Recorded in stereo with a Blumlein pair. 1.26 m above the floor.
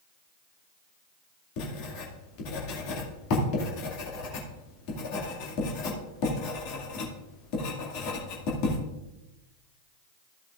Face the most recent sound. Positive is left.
turn(degrees=45)